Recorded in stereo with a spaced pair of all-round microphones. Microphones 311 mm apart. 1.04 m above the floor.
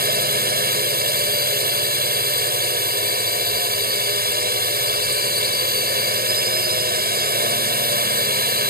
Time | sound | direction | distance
0.0 | a drone | 30° right (ahead or behind) | ?